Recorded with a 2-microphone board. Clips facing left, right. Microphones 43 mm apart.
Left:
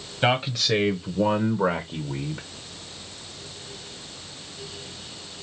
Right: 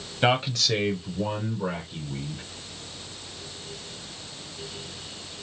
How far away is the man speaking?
About 0.8 m.